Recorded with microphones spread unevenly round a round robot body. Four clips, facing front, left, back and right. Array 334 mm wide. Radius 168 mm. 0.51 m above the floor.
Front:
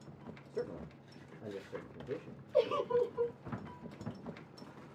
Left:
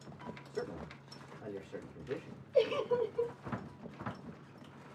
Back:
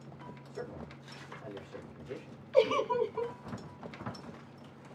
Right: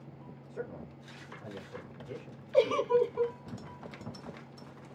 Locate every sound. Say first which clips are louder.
0.5 s a man speaking: even, front 3 dB; 20° left, 1.8 m
2.5 s a giggle: right 5 dB, back 4 dB; 140° right, 1.5 m